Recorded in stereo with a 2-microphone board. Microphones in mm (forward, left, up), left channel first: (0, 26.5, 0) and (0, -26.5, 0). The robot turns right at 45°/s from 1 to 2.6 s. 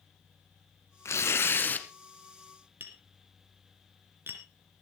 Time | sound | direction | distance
1.1 | tearing paper | 110° left | 1.3 m
2.8 | tapping | 45° right (ahead or behind) | 2.5 m